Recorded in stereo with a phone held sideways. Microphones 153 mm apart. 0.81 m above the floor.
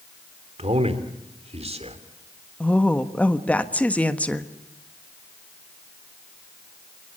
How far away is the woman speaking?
About 1.3 m.